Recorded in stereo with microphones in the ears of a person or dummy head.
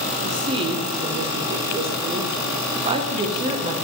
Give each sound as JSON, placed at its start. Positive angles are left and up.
{"t": 0.2, "sound": "a woman speaking", "side_deg": -30, "distance_m": 0.7}